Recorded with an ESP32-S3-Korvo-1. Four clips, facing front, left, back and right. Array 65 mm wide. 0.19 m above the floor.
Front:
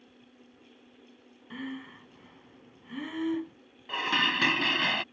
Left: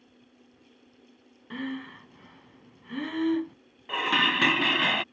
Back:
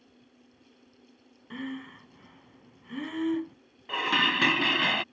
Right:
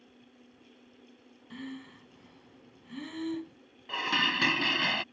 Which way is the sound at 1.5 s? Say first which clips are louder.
Left 8 dB, back 2 dB; 95° left.